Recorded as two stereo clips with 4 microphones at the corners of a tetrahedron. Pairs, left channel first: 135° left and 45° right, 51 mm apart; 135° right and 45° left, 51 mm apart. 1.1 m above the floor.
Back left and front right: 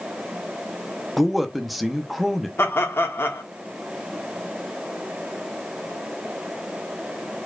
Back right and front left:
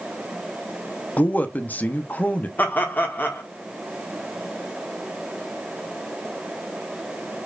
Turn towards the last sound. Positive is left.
turn(degrees=170)